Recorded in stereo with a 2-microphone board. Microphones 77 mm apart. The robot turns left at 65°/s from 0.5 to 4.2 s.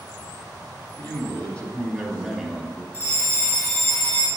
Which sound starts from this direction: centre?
A fire alarm, at 2.9 s.